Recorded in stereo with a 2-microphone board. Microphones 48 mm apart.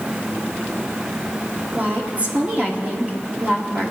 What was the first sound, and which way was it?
A woman speaking, 30° right (ahead or behind).